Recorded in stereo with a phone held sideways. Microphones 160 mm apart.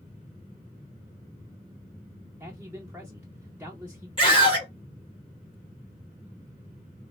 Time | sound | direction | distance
2.4 | a man speaking | 10° right (ahead or behind) | 0.6 m
4.2 | a scream | 35° left (ahead or behind) | 2 m